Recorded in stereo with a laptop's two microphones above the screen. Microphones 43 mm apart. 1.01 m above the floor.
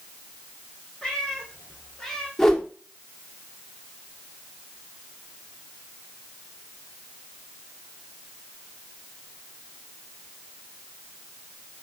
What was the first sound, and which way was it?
A cat meowing, 15° left (ahead or behind).